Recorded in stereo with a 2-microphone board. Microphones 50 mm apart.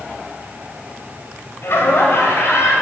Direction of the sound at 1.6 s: 60° left (ahead or behind).